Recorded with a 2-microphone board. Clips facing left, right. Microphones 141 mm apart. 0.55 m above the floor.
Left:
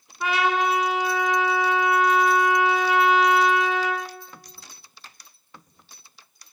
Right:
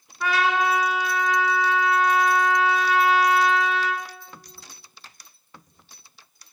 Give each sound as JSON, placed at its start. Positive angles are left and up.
{"t": 0.2, "sound": "a trumpet", "side_deg": 15, "distance_m": 2.0}